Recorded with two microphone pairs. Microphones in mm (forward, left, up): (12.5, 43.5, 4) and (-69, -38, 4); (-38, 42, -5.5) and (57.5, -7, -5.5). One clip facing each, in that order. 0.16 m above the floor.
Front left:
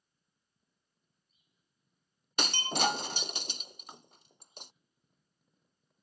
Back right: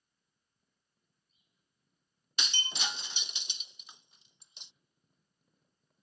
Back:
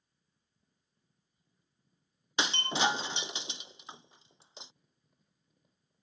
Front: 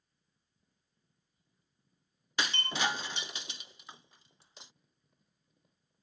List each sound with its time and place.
2.4 s breaking glass: 85° left